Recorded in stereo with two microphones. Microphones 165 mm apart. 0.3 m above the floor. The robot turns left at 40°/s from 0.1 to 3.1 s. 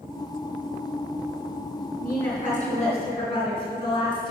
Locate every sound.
2.0 s a woman speaking: 75° left, 3.5 m; by 4.3 s 35° left, 3.5 m